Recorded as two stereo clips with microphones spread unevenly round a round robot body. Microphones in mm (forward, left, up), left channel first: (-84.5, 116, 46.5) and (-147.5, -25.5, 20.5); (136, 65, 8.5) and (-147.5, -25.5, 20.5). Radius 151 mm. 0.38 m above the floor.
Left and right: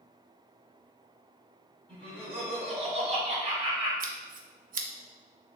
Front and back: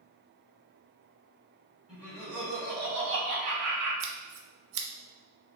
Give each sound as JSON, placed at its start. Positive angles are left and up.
{"t": 1.9, "sound": "laughter", "azimuth_deg": -75, "distance_m": 1.6}
{"t": 4.0, "sound": "scissors", "azimuth_deg": -130, "distance_m": 0.6}